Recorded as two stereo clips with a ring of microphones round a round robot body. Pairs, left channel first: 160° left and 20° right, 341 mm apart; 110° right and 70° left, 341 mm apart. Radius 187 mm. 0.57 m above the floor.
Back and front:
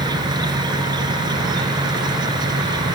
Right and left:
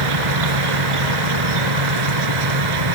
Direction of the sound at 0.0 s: 55° left.